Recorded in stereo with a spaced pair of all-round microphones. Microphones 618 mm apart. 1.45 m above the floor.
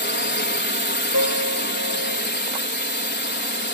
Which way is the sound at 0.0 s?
15° left (ahead or behind).